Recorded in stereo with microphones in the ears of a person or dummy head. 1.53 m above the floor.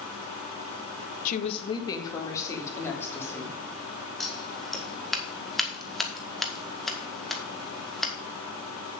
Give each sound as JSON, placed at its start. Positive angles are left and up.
{"t": 1.2, "sound": "a woman speaking", "side_deg": 45, "distance_m": 0.8}
{"t": 4.2, "sound": "scissors", "side_deg": 5, "distance_m": 1.9}